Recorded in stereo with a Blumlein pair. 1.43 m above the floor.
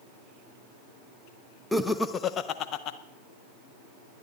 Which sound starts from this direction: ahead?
Laughter, at 1.7 s.